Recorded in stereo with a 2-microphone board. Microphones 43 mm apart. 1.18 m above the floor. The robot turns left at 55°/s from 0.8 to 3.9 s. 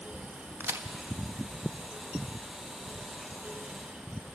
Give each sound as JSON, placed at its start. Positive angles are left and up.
{"t": 0.6, "sound": "a crack", "side_deg": -70, "distance_m": 1.4}